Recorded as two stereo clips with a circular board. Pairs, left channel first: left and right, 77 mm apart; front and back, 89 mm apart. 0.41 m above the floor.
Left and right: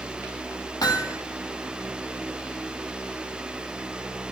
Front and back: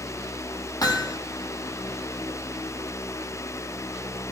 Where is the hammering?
50° left, 6.5 m.